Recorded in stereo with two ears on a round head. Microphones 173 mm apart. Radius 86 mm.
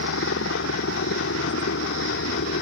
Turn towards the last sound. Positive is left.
turn(degrees=70)  # may be behind; listen again after turning